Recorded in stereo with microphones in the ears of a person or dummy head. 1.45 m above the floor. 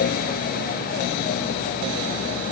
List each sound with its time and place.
Only background noise.